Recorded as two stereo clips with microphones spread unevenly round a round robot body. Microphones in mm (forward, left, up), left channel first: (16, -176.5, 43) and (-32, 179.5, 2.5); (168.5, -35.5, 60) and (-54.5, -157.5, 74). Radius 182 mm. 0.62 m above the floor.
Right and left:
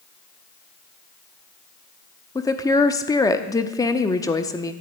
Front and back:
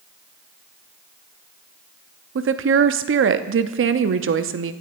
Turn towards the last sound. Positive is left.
turn(degrees=-165)